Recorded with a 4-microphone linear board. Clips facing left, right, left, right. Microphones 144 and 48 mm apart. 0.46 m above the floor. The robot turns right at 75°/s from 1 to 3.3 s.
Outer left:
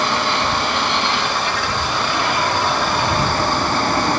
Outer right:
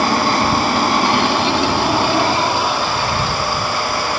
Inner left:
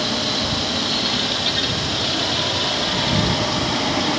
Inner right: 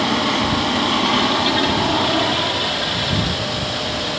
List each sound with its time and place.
0.0 s an aircraft: 135° right; by 4.2 s 40° left